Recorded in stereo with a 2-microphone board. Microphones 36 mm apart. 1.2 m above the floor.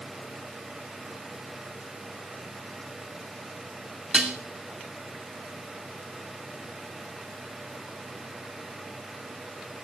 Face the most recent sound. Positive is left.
turn(degrees=-25)  # may be behind; listen again after turning